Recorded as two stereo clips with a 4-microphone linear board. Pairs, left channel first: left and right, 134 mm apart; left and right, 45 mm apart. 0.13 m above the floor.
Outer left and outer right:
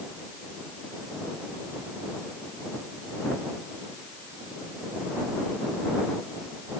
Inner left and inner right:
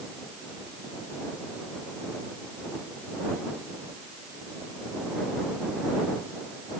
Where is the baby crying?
I don't hear a baby crying.